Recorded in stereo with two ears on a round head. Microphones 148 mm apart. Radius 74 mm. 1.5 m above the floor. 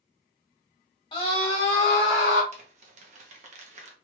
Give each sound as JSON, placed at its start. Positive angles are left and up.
{"t": 1.1, "sound": "a scream", "side_deg": 35, "distance_m": 1.2}
{"t": 2.5, "sound": "crumpling", "side_deg": -50, "distance_m": 0.8}